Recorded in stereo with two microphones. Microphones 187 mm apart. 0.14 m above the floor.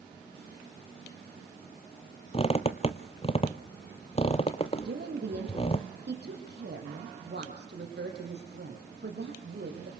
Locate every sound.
2.3 s a squeak: 35° left (ahead or behind), 0.9 m
4.8 s a woman speaking: 65° right (ahead or behind), 5.5 m